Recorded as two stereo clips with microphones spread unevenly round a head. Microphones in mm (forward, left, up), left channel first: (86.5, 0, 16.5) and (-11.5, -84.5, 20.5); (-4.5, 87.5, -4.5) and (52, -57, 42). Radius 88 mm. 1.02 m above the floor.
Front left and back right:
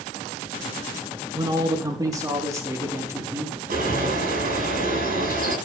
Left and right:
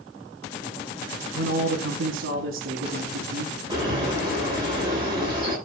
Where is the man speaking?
85° right, 1.9 m; by 4.1 s 65° right, 3.5 m.